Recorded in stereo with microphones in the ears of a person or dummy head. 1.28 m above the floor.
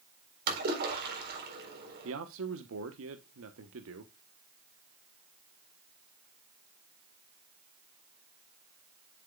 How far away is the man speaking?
About 1.0 m.